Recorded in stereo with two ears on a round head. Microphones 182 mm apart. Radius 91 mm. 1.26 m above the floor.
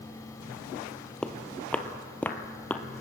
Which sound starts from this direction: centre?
Footsteps, at 1.2 s.